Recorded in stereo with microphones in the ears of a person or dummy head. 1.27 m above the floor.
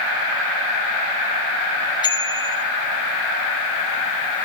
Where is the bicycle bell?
25° left (ahead or behind), 2 m.